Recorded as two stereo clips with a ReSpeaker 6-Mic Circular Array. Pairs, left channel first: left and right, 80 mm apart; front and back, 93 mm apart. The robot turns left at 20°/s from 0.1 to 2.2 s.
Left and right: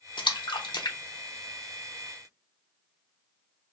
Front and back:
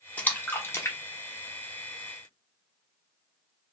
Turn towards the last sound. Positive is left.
turn(degrees=35)